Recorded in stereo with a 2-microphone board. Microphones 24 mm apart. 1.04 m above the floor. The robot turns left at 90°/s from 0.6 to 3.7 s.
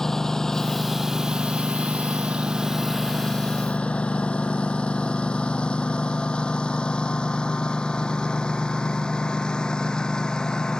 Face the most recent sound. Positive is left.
turn(degrees=35)  # may be behind; listen again after turning